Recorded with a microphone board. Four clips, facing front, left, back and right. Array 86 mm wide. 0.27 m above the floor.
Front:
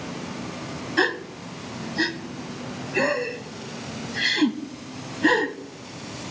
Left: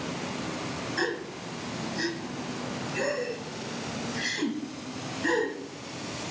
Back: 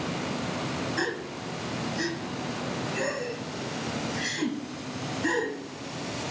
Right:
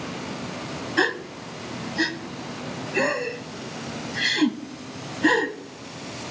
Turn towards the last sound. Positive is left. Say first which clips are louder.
# right 8 dB, front 6 dB
turn(degrees=-45)